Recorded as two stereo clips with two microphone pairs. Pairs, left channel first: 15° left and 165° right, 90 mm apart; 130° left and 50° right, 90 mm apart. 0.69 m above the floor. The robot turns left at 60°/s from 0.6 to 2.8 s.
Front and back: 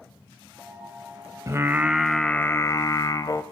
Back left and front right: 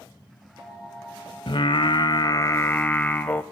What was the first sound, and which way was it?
Singing, 145° left.